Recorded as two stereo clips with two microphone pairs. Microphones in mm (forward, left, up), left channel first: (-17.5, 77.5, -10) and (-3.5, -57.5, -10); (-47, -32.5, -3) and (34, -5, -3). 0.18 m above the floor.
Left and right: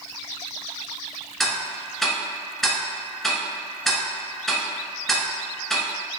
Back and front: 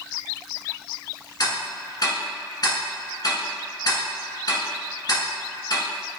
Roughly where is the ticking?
Behind.